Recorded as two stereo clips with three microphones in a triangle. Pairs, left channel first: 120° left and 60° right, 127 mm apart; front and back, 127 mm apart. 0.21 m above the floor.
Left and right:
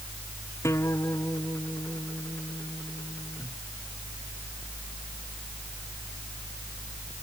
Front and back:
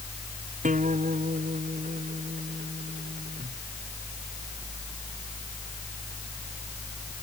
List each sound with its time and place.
0.6 s a guitar: 170° right